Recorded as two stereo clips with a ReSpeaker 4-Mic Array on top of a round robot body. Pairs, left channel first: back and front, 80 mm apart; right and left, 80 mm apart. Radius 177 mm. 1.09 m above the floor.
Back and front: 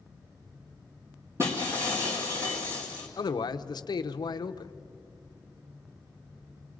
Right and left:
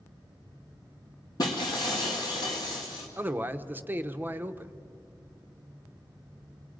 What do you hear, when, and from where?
1.4 s breaking glass: 55° right, 1.4 m
3.2 s a man speaking: 155° left, 0.9 m